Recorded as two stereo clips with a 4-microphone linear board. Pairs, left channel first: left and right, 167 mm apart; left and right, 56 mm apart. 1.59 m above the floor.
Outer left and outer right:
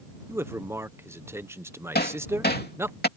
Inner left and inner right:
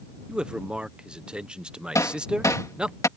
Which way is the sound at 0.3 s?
15° right (ahead or behind).